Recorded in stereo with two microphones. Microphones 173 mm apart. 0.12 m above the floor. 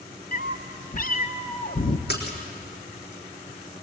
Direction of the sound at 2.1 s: 70° left (ahead or behind).